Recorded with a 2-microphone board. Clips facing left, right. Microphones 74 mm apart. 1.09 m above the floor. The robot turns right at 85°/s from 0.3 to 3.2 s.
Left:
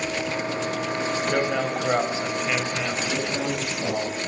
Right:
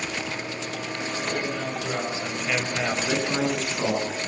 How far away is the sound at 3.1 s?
About 9.5 m.